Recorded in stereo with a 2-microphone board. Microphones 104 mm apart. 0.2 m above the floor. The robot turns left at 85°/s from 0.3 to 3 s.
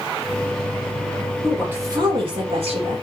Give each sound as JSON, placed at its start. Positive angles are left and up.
{"t": 1.4, "sound": "a woman speaking", "azimuth_deg": 5, "distance_m": 7.5}